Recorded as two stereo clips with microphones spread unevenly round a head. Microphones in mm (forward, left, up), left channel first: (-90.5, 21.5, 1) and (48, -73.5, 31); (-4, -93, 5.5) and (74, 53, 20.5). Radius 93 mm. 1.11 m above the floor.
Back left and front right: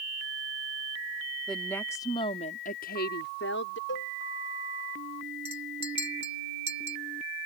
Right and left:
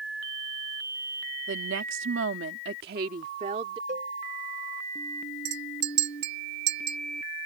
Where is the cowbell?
115° left.